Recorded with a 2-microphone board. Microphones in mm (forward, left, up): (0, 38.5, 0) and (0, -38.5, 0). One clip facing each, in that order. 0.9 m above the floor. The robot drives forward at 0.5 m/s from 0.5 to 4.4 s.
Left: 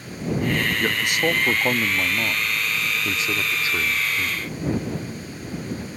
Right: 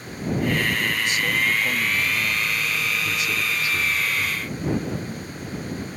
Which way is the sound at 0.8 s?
60° left (ahead or behind).